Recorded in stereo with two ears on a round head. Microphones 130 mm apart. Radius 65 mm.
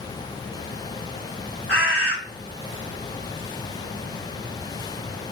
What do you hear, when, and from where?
1.7 s a bird: 5° right (ahead or behind), 1.3 m